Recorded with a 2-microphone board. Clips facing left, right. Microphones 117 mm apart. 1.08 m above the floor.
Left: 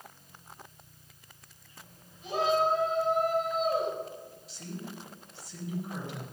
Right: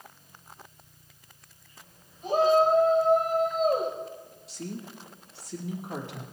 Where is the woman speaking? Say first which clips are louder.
Right 4 dB; 75° right (ahead or behind), 3 m.